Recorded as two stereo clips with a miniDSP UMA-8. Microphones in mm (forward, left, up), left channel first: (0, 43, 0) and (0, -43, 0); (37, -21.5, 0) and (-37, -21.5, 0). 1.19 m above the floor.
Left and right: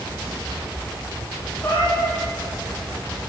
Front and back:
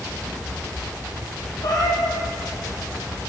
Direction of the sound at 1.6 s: 25° left.